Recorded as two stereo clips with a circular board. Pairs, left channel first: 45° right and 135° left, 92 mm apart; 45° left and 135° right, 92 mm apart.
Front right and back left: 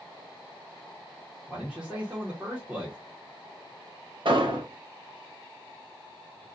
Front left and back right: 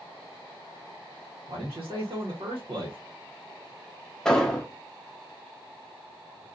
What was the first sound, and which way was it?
A man speaking, 150° right.